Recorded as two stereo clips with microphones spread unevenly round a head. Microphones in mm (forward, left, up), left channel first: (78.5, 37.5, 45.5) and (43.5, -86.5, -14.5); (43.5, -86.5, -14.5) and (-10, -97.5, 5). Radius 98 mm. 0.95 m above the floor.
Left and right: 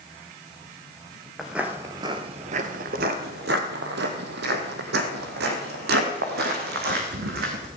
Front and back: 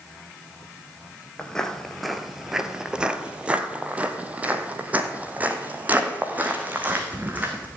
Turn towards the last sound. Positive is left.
turn(degrees=-115)